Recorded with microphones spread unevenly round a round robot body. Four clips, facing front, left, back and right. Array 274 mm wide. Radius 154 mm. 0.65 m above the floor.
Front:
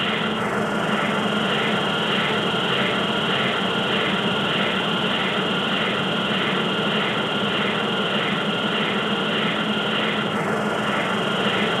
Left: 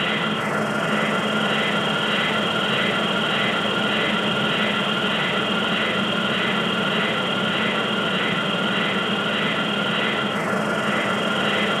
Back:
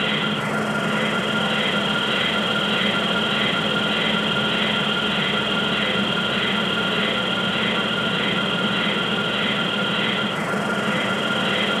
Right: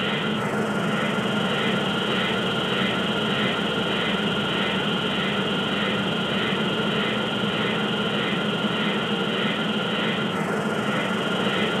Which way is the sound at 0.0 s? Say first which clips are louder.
Left 2 dB, even; 35° left.